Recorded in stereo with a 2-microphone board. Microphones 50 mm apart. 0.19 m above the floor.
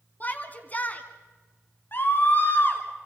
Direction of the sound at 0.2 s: 35° left (ahead or behind).